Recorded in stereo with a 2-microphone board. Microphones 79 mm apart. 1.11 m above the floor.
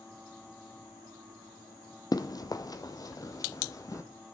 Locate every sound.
2.1 s running footsteps: 50° left (ahead or behind), 1.7 m; by 4.0 s 40° left (ahead or behind), 2 m